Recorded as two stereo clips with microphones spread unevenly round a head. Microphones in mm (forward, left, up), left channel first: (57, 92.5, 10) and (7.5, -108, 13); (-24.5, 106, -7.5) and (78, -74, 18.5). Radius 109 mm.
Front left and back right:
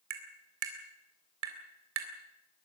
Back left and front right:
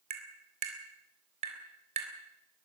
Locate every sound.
0.1 s tapping: 115° right, 3.5 m